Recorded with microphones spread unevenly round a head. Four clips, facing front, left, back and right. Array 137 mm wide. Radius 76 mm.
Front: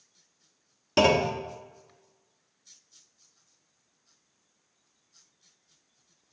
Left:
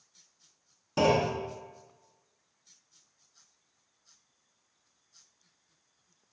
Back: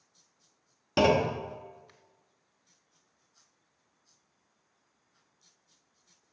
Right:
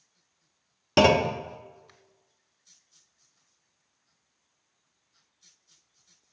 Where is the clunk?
60° right, 0.7 m.